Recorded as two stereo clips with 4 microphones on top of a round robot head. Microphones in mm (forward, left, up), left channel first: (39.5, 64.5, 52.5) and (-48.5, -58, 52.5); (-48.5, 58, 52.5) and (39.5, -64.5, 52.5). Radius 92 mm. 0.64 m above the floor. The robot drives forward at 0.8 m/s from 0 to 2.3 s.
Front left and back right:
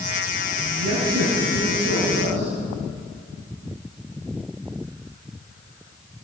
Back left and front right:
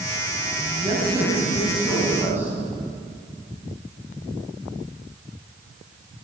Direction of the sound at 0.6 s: 115° right.